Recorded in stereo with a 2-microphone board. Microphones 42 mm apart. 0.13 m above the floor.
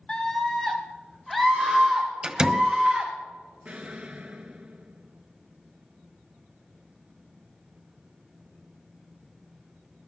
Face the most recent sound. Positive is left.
turn(degrees=-30)  # may be behind; listen again after turning